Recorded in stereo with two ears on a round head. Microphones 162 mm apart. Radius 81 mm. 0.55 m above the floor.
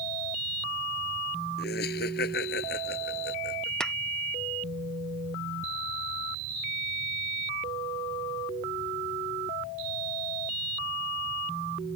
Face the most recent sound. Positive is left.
turn(degrees=5)  # may be behind; listen again after turning